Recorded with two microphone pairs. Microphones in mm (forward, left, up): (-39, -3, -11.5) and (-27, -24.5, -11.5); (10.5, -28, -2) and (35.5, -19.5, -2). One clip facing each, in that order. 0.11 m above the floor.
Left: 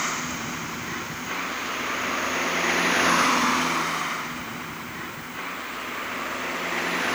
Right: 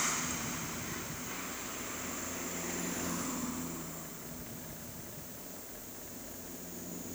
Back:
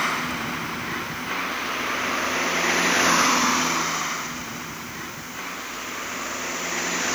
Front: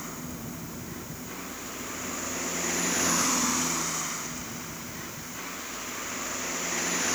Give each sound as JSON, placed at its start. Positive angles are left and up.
{"t": 0.0, "sound": "a vehicle", "azimuth_deg": 180}